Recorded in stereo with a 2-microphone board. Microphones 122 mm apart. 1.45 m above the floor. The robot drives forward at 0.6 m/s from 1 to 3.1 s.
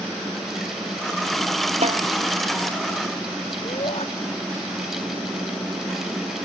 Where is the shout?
60° left (ahead or behind).